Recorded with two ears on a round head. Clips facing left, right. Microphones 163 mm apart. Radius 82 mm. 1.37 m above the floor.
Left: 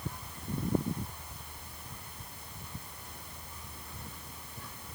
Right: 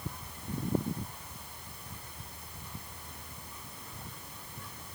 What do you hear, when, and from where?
Only background noise.